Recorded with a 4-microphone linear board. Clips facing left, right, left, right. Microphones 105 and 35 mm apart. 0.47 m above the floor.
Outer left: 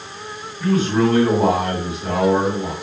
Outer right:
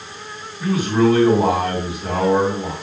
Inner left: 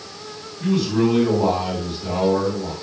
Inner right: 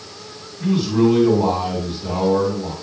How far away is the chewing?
I don't hear chewing.